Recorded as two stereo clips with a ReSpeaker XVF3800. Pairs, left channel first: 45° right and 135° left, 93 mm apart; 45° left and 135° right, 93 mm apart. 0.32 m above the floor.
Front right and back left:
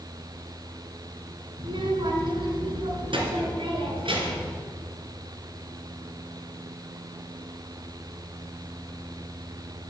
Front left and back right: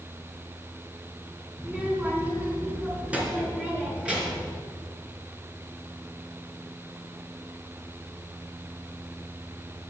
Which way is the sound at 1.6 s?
150° left.